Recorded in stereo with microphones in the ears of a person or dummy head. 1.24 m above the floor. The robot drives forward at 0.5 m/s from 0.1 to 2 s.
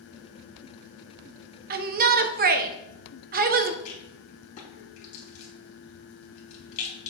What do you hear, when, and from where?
1.7 s a shout: 45° right (ahead or behind), 0.7 m
3.9 s a rattle: 50° left (ahead or behind), 3 m